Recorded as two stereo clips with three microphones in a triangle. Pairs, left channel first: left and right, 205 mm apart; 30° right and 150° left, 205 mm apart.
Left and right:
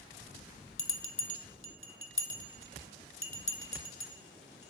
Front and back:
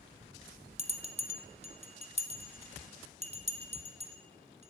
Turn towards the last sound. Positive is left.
turn(degrees=95)